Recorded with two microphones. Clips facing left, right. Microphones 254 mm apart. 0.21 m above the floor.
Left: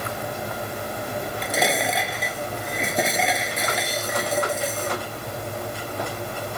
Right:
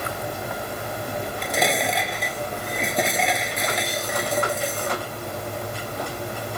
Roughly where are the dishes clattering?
Centre.